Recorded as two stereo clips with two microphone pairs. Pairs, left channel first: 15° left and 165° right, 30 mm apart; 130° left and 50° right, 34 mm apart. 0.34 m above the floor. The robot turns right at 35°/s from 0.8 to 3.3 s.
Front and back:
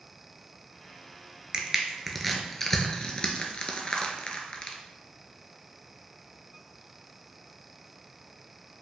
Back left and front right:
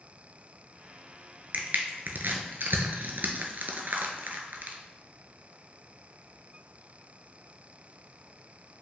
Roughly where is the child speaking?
I don't hear a child speaking.